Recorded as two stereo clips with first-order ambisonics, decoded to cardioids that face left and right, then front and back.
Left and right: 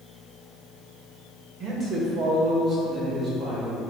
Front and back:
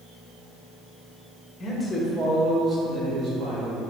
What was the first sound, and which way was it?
A man speaking, 65° right.